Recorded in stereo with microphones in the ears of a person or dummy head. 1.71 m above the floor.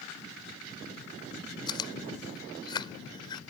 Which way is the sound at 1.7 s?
20° left (ahead or behind).